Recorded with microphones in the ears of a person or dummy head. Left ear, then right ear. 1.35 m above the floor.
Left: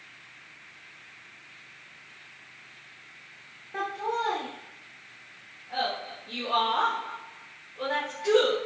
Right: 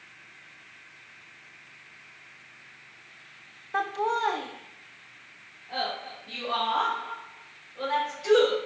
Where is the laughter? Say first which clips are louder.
Right 3 dB; 40° right (ahead or behind), 0.6 m; by 8.5 s 60° right (ahead or behind), 4 m.